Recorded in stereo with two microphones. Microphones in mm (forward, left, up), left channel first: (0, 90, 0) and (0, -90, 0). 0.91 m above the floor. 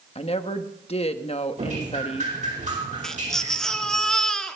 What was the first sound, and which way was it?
A woman speaking, 35° left (ahead or behind).